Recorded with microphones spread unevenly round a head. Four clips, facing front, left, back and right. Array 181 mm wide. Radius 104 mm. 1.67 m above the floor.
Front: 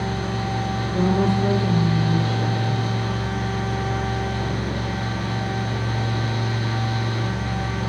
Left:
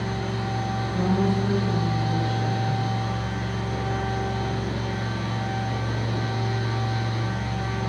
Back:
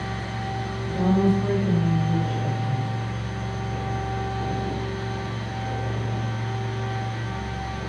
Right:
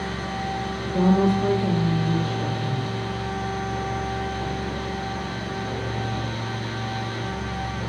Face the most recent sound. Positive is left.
turn(degrees=-55)